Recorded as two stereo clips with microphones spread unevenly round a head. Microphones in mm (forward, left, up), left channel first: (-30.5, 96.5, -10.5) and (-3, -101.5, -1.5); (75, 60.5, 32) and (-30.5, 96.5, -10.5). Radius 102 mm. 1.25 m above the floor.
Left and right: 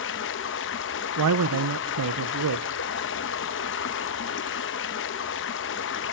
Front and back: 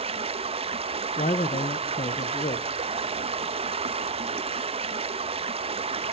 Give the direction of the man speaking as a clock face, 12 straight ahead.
3 o'clock.